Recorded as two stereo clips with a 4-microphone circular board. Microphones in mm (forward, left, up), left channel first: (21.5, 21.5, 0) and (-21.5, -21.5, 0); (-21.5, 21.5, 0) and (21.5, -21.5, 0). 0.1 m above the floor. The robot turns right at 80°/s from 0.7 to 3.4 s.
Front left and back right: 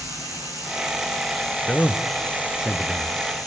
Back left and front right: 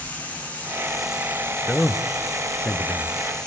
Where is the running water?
160° right, 6.5 m; by 3.5 s 60° left, 6.5 m.